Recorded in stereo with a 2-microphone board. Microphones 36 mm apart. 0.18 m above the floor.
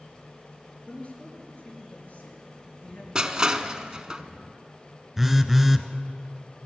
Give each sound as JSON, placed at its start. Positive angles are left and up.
{"t": 0.9, "sound": "a man speaking", "side_deg": 40, "distance_m": 4.0}
{"t": 3.1, "sound": "crushing", "side_deg": -20, "distance_m": 0.7}
{"t": 5.2, "sound": "a phone buzzing", "side_deg": -5, "distance_m": 0.8}